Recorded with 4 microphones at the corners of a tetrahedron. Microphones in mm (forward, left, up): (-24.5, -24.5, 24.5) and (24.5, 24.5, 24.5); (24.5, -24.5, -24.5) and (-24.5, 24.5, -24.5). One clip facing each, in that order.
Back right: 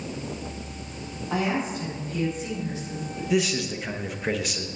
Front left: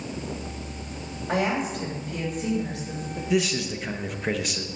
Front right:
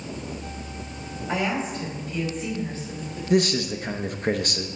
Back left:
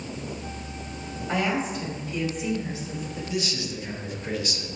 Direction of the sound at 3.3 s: 45° right.